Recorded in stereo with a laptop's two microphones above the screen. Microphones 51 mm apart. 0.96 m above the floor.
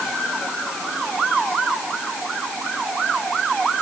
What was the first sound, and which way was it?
Only background noise.